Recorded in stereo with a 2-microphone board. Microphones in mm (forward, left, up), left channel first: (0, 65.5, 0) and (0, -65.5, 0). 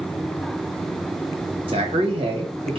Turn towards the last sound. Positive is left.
turn(degrees=-45)  # may be behind; listen again after turning